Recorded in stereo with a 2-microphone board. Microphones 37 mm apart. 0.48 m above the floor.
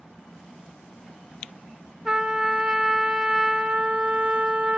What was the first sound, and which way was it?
A trumpet, 25° right (ahead or behind).